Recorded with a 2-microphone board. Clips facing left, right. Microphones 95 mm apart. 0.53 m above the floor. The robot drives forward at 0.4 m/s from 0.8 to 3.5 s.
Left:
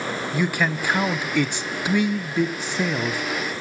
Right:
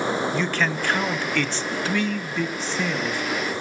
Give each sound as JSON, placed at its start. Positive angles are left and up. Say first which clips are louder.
{"t": 0.3, "sound": "a man speaking", "louder": "left 1 dB", "side_deg": 10, "distance_m": 0.8}